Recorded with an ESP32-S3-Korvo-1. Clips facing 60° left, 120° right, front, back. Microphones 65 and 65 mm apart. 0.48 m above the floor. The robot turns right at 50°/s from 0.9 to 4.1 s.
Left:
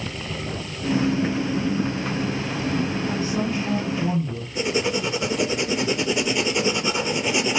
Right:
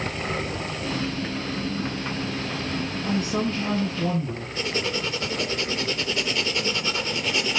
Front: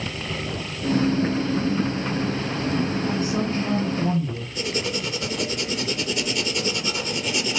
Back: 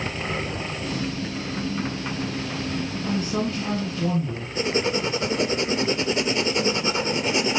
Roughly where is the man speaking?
Behind right.